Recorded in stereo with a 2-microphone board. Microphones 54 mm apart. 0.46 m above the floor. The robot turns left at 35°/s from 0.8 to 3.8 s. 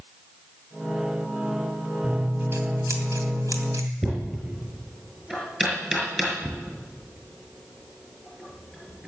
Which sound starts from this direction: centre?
Knocking, at 4.0 s.